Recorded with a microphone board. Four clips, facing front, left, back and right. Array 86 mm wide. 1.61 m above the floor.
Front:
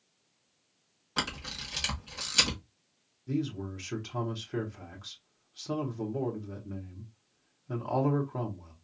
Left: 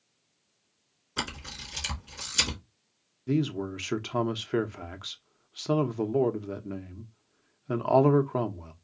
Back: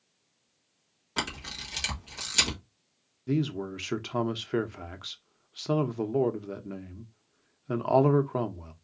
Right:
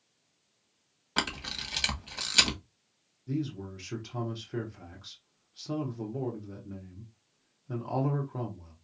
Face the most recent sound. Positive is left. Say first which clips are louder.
# left 7 dB, back 4 dB
turn(degrees=125)